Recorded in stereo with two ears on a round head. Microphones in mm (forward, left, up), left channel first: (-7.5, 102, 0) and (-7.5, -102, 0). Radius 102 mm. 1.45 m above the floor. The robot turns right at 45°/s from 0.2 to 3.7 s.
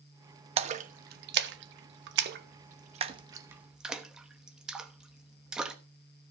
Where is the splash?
25° right (ahead or behind), 1.0 m; by 5.8 s 5° right (ahead or behind), 1.0 m.